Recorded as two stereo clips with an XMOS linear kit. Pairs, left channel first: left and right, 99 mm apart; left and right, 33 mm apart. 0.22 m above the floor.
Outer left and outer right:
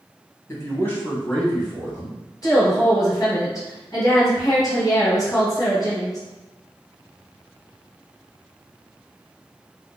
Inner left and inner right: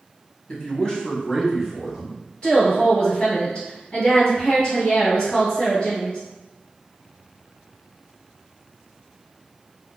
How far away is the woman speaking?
About 1.9 m.